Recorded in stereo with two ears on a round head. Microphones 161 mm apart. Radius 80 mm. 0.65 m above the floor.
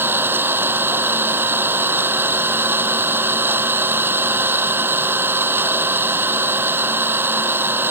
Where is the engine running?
15° right (ahead or behind).